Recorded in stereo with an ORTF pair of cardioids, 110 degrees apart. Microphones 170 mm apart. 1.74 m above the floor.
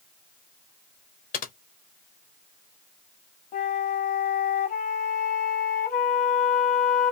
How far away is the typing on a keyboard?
About 0.7 m.